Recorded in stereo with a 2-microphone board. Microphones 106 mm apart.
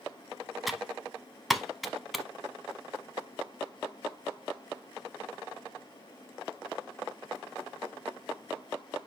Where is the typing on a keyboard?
Centre (ahead or behind), 0.8 m.